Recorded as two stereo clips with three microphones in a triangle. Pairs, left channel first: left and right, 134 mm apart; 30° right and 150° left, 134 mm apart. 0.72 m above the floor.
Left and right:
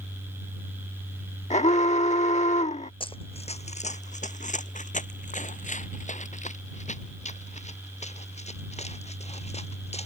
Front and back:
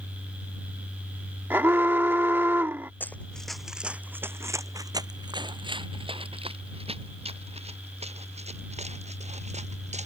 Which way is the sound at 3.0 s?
45° left.